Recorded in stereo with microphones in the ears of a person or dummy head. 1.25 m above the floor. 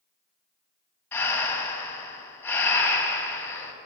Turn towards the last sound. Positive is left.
turn(degrees=10)  # may be behind; listen again after turning